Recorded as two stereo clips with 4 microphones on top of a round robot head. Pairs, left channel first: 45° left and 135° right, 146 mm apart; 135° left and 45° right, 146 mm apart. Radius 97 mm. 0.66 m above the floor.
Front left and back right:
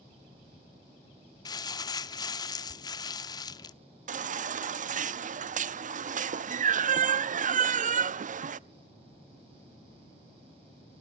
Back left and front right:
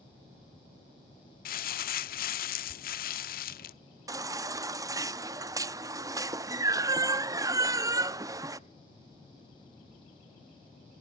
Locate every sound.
1.4 s crumpling: 110° left, 0.7 m
4.1 s a baby crying: 110° right, 0.6 m